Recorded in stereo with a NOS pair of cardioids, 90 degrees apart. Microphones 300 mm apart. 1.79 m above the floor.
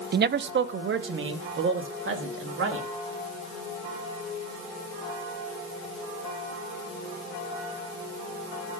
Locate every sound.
0.1 s a man speaking: 35° right, 0.6 m; by 2.9 s 45° right, 3.5 m